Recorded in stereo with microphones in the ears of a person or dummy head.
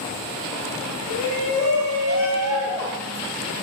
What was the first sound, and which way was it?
A shout, 50° left (ahead or behind).